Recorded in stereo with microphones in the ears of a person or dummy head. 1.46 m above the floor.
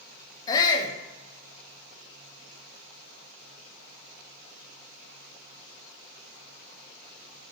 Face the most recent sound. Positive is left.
turn(degrees=20)  # may be behind; listen again after turning